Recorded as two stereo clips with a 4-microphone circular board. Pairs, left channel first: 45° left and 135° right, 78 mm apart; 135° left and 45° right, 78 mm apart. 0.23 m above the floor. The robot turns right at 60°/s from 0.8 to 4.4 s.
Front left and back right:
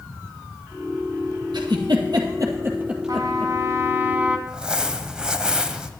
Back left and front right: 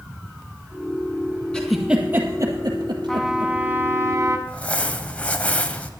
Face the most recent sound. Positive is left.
turn(degrees=165)